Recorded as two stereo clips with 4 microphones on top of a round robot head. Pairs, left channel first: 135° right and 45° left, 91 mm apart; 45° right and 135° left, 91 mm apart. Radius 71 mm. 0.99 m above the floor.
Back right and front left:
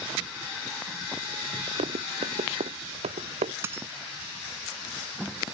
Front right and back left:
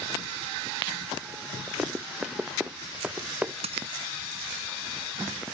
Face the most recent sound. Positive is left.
turn(degrees=110)